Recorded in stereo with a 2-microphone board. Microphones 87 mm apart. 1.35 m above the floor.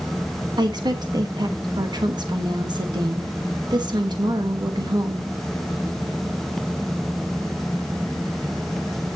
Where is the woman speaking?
55° right (ahead or behind), 1.4 m.